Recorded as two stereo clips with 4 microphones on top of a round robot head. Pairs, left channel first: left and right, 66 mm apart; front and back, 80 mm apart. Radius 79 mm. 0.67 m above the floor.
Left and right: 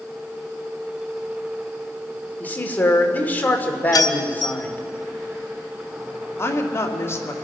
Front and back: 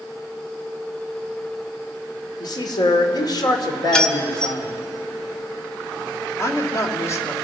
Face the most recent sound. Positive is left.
turn(degrees=45)